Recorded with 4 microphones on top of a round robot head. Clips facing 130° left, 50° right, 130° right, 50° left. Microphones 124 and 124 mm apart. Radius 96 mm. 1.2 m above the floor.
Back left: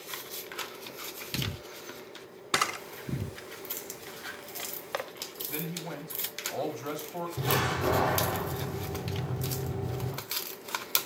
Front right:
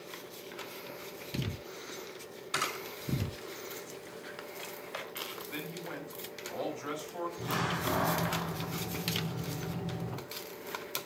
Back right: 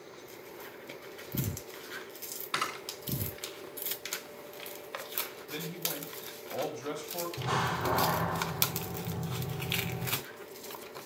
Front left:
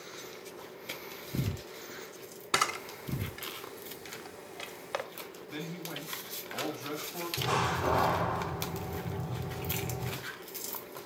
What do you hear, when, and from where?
2.5 s a camera shutter: 100° left, 1.5 m
5.5 s a man speaking: 170° right, 6.5 m
7.4 s a door slam: 135° left, 4 m